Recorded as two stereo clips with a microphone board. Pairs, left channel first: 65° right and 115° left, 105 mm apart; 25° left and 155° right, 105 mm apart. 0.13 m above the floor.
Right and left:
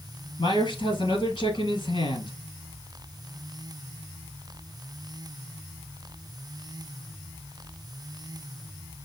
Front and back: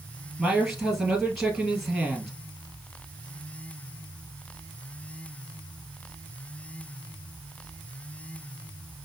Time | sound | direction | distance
0.4 | a man speaking | 70° right | 2.5 m